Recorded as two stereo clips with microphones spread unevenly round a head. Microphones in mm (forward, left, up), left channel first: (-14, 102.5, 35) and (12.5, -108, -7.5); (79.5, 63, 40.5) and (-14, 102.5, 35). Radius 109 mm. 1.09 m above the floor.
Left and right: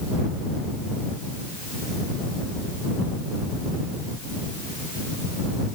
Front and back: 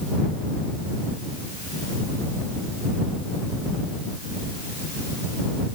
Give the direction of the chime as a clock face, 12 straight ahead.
No chime in this recording.